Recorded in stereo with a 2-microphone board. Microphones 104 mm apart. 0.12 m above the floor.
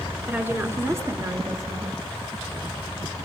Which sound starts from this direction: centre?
A woman speaking, at 0.3 s.